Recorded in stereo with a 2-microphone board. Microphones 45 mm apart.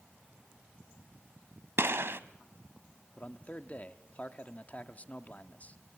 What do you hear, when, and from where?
1.8 s a gunshot: 65° right (ahead or behind), 0.7 m
3.2 s a man speaking: 35° left (ahead or behind), 0.9 m